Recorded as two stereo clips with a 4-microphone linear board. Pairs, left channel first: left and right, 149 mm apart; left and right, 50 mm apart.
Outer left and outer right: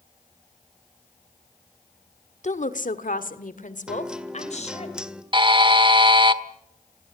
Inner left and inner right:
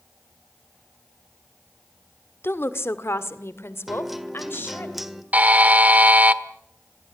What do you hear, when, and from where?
2.4 s a woman speaking: 50° left (ahead or behind), 1.6 m; by 4.9 s 45° left (ahead or behind), 3.5 m
3.9 s a guitar: 5° right (ahead or behind), 1.6 m
5.3 s a buzzer: 35° right (ahead or behind), 1.2 m